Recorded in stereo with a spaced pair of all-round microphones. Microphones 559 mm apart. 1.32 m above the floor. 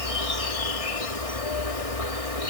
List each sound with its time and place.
0.0 s an insect: 80° left